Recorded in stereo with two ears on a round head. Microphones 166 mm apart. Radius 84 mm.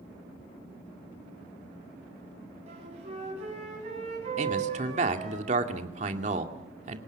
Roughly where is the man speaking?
Right.